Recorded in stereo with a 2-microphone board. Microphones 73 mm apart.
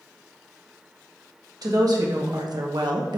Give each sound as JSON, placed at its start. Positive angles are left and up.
{"t": 1.6, "sound": "a woman speaking", "side_deg": -60, "distance_m": 1.6}